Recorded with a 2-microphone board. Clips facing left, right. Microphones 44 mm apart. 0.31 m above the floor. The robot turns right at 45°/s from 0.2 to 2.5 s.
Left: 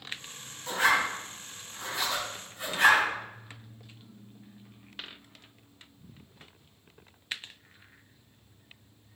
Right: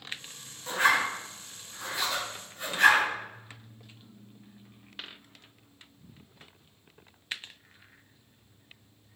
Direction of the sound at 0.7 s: 30° right (ahead or behind).